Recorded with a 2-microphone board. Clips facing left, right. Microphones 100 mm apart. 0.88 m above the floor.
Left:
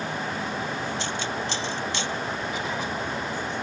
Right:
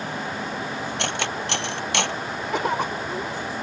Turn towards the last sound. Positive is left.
turn(degrees=-70)  # may be behind; listen again after turning